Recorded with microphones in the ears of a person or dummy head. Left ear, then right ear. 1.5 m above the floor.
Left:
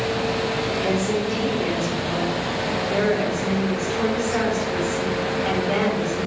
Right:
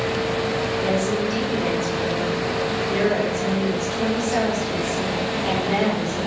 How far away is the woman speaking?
About 4 m.